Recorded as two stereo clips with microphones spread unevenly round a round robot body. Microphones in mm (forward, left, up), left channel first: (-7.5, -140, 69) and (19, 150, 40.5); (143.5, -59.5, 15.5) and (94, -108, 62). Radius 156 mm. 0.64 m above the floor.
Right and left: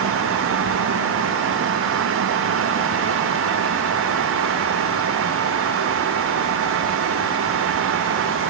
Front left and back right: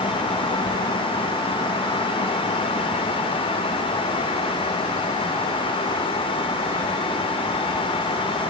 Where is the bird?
No bird in this recording.